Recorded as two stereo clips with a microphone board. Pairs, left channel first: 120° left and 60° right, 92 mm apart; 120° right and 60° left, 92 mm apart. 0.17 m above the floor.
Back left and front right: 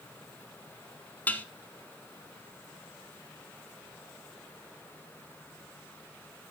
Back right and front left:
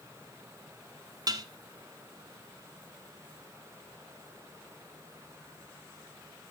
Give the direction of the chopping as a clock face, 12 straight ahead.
No chopping in this recording.